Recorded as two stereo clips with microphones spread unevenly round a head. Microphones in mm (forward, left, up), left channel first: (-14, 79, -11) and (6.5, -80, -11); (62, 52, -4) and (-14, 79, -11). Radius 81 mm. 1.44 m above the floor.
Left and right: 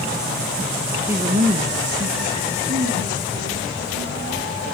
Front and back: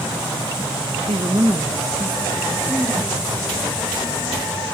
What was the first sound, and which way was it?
A woman speaking, 165° right.